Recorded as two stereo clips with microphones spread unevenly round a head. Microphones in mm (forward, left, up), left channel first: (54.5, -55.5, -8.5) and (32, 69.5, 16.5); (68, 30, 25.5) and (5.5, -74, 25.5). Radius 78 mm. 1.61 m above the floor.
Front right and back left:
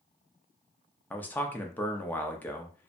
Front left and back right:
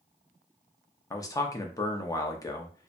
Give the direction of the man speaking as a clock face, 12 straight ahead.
12 o'clock.